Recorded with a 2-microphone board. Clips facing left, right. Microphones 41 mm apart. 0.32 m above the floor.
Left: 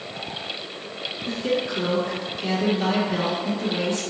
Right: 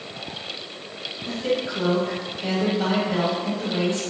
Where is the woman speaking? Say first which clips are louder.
Even; 30° right (ahead or behind), 1.5 m.